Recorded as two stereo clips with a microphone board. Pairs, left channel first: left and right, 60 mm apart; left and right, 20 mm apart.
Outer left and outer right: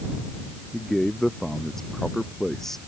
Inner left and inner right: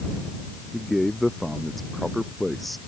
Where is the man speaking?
5° left (ahead or behind).